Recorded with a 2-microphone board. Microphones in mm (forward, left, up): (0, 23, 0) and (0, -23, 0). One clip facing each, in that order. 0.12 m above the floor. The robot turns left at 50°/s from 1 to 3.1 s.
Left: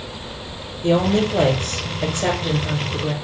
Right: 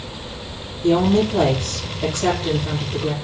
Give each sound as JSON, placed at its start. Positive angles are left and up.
{"t": 0.8, "sound": "a woman speaking", "azimuth_deg": 110, "distance_m": 1.7}